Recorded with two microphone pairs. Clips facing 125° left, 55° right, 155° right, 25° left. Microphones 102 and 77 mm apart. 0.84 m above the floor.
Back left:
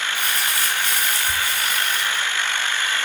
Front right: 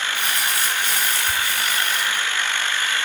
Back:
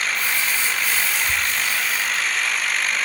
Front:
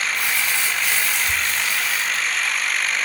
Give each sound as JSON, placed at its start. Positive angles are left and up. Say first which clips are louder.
{"t": 0.1, "sound": "crumpling", "louder": "even, even", "azimuth_deg": 10, "distance_m": 3.5}